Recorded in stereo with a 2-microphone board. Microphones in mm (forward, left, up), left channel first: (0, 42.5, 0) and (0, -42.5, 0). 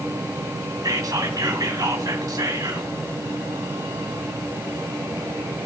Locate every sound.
0.8 s whispering: 50° right (ahead or behind), 2 m